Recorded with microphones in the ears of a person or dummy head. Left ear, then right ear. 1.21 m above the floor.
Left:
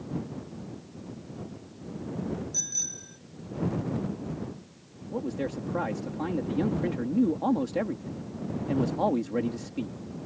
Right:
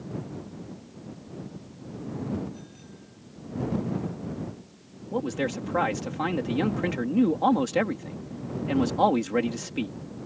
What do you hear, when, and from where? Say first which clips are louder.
2.5 s a bicycle bell: left 17 dB; 85° left
5.1 s a man speaking: right 4 dB; 55° right (ahead or behind)